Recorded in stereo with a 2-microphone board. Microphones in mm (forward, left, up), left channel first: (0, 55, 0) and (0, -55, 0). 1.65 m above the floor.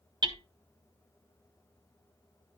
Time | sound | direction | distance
0.2 | hammering | 45° right (ahead or behind) | 0.8 m